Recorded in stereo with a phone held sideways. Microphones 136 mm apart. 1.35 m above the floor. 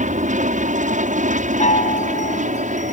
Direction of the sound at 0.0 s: 65° right (ahead or behind).